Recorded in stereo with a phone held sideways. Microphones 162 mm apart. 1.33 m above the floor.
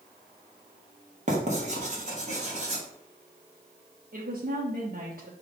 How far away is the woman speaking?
About 0.9 m.